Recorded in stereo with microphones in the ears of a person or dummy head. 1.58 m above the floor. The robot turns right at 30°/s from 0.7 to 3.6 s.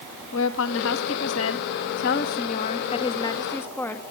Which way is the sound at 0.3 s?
80° left.